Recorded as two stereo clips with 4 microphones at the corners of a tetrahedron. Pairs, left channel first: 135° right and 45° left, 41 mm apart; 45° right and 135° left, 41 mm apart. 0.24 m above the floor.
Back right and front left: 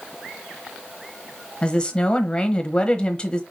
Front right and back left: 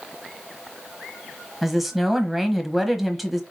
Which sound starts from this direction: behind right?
A woman speaking, at 1.6 s.